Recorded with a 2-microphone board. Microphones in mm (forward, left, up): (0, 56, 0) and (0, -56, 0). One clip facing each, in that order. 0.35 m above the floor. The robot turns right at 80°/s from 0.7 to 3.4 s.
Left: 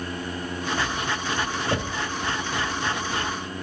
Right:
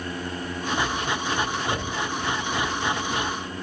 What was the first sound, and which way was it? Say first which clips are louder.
Knocking: left 1 dB; 30° left (ahead or behind).